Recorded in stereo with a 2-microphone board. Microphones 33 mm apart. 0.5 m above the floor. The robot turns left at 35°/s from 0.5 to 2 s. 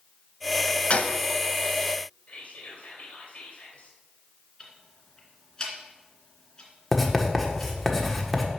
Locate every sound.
0.9 s a gunshot: 40° left (ahead or behind), 0.6 m; by 1.2 s 50° left (ahead or behind), 0.6 m
2.3 s whispering: 45° left (ahead or behind), 2.5 m
4.6 s ticking: 25° left (ahead or behind), 2.0 m
6.9 s writing: 5° left (ahead or behind), 1.3 m